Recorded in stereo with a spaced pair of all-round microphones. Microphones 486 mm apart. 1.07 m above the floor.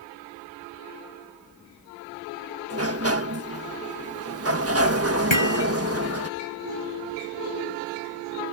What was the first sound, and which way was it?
A sliding door, 30° right (ahead or behind).